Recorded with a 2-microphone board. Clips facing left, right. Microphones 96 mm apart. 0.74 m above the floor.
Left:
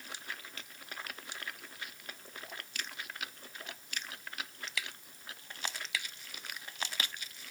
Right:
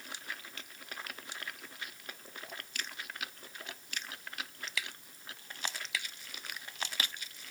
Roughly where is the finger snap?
I don't hear a finger snap.